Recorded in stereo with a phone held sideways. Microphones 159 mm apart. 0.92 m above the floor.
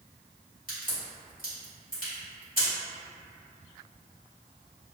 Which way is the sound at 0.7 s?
60° left (ahead or behind).